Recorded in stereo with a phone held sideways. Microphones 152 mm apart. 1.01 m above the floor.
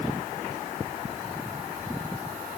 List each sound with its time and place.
Only background noise.